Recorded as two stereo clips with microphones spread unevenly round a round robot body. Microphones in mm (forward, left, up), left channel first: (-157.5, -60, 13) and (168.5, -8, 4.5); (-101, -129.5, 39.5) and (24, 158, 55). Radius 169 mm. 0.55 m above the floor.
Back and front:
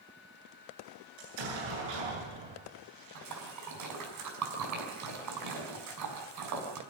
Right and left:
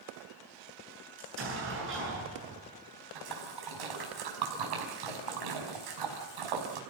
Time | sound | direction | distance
1.2 | an explosion | 10° left | 8.5 m
3.1 | a splash | 50° left | 5 m